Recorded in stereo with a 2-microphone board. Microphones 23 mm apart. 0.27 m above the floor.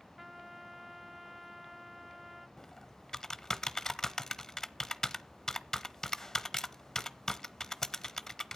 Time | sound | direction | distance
0.2 | a trumpet | 10° right (ahead or behind) | 0.6 m
2.6 | typing on a keyboard | 20° left (ahead or behind) | 0.8 m